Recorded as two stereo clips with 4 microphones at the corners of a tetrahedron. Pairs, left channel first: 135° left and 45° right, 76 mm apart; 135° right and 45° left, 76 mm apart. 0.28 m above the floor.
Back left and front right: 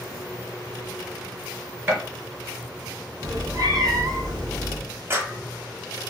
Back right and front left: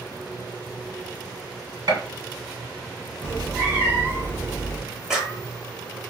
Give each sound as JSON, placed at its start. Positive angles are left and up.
{"t": 1.9, "sound": "a gunshot", "azimuth_deg": 15, "distance_m": 2.0}
{"t": 3.2, "sound": "a cat meowing", "azimuth_deg": -10, "distance_m": 1.4}
{"t": 5.1, "sound": "a clap", "azimuth_deg": -30, "distance_m": 1.0}